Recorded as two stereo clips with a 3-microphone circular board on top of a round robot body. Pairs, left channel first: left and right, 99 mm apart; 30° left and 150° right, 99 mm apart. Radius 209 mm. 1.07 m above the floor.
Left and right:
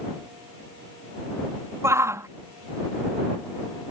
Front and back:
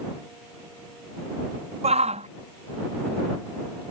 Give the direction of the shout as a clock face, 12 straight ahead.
5 o'clock.